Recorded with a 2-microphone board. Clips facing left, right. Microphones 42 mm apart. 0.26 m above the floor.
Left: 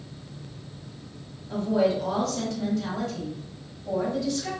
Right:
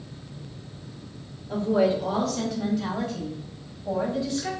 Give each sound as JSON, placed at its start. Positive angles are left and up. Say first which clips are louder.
{"t": 1.5, "sound": "a woman speaking", "louder": "right 1 dB", "side_deg": -10, "distance_m": 1.9}